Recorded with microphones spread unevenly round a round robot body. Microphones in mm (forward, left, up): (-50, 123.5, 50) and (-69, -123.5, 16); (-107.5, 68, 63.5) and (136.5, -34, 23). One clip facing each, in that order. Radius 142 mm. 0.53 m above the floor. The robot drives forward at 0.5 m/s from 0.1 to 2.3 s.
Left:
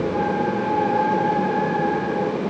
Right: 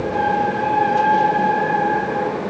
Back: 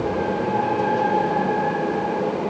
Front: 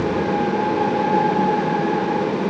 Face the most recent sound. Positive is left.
No sound to turn to.